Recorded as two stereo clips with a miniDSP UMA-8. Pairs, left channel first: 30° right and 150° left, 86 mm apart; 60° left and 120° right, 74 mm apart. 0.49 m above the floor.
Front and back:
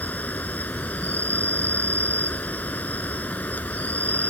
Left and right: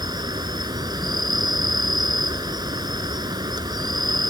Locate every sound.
0.0 s an insect: 100° right